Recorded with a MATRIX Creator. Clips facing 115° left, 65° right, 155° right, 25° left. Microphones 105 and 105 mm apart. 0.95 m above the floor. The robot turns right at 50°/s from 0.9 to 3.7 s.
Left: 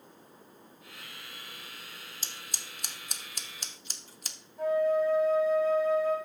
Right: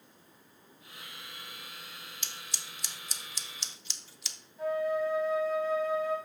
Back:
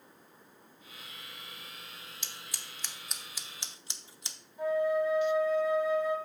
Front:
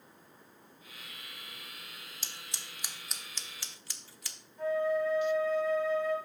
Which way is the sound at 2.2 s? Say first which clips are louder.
Even, even; 70° left.